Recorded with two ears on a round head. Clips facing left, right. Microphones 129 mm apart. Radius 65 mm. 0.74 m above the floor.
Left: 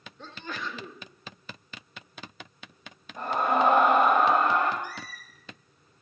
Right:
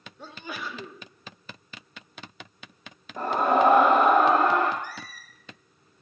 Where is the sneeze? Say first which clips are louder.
Even; 10° right (ahead or behind), 1.2 m.